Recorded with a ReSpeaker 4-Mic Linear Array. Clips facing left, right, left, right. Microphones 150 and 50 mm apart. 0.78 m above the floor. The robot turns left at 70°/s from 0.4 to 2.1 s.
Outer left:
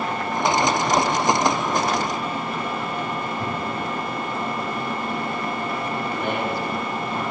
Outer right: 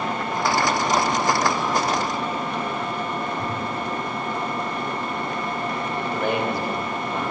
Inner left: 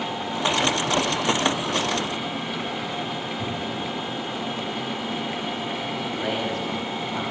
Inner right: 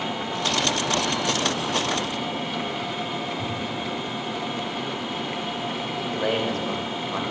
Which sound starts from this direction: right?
A man speaking, at 6.1 s.